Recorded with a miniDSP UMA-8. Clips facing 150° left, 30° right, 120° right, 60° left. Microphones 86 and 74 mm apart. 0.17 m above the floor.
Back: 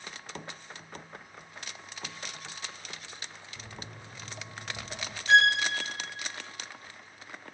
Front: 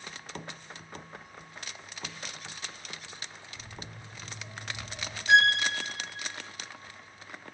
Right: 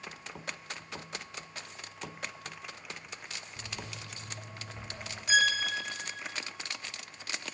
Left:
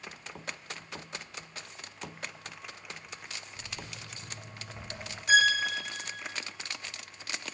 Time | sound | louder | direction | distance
3.6 | footsteps | back 1 dB, right 3 dB | 175° right | 1.8 m
5.3 | a violin | even, left 3 dB | 40° left | 1.3 m